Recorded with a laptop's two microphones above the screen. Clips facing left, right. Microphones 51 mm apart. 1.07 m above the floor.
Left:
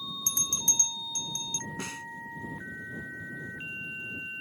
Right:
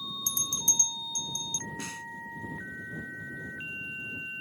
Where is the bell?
50° left (ahead or behind).